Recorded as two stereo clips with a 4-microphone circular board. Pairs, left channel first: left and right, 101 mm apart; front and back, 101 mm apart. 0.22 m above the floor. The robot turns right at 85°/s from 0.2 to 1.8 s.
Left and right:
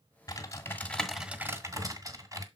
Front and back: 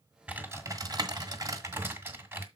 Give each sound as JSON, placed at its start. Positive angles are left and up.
{"t": 0.3, "sound": "typing on a keyboard", "azimuth_deg": 110, "distance_m": 1.7}